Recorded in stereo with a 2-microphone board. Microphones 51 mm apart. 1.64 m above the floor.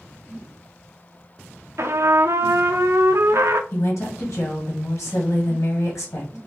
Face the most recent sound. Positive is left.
turn(degrees=80)